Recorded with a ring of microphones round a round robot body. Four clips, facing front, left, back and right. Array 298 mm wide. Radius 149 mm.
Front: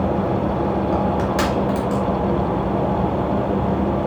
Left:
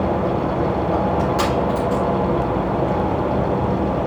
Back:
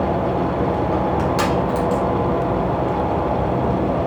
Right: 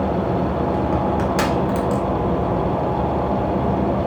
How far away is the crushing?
About 3.5 m.